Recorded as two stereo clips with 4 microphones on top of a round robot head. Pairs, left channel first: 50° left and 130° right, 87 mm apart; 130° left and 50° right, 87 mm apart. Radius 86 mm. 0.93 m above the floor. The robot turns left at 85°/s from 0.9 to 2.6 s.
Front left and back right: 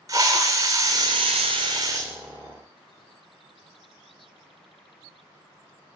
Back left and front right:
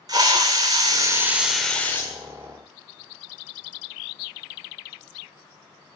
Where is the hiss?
80° right, 0.6 m; by 2.1 s 175° left, 0.6 m.